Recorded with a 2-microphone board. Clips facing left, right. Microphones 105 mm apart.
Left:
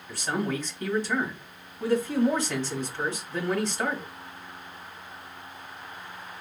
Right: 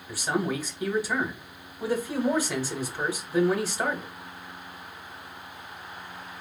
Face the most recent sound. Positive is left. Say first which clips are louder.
# right 1 dB
turn(degrees=-10)  # may be behind; listen again after turning